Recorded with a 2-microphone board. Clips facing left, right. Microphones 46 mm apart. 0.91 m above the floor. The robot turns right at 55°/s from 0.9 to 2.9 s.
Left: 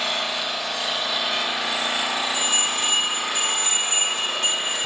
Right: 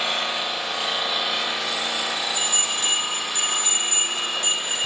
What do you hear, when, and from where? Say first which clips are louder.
0.0 s an engine running: right 1 dB; 25° right, 0.9 m; by 4.9 s 85° left, 0.9 m
2.3 s a bell: left 2 dB; 65° left (ahead or behind), 1.9 m